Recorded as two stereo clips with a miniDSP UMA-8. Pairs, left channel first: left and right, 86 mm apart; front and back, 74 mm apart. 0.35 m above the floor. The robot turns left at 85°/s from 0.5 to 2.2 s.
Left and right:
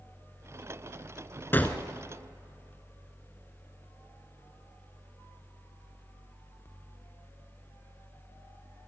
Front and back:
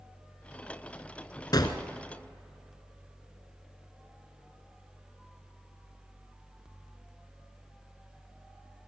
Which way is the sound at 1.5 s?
25° left.